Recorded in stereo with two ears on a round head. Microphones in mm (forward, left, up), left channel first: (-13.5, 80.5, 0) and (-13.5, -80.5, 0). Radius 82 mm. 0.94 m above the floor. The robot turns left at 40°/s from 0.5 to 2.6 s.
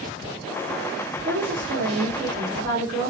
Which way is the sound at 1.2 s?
65° right.